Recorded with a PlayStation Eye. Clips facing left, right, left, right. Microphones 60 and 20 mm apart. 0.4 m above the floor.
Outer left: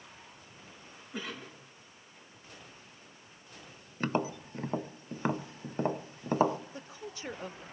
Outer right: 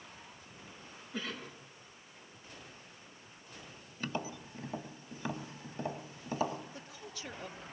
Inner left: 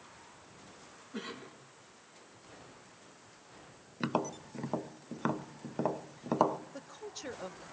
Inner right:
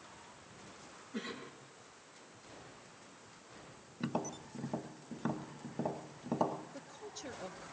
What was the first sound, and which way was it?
A cough, 20° left (ahead or behind).